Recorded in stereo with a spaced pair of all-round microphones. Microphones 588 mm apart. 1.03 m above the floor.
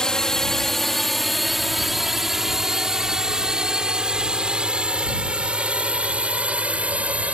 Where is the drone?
Centre (ahead or behind).